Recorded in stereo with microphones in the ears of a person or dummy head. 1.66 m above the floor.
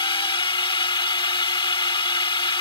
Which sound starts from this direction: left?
A drone, at 0.0 s.